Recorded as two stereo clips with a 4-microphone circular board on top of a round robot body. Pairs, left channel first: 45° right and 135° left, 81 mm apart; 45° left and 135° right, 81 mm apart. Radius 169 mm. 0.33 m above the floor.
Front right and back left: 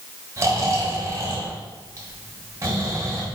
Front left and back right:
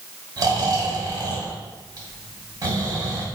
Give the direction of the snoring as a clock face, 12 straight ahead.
6 o'clock.